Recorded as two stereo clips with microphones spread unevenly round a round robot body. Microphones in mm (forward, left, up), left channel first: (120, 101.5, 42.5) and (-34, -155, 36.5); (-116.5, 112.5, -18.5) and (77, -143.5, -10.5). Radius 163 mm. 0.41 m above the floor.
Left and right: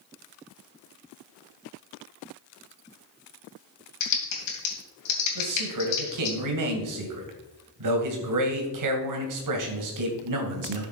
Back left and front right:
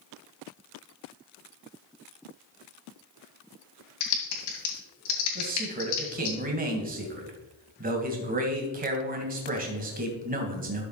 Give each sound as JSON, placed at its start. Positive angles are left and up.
{"t": 4.0, "sound": "typing on a keyboard", "azimuth_deg": 90, "distance_m": 2.5}
{"t": 5.3, "sound": "a man speaking", "azimuth_deg": -115, "distance_m": 2.5}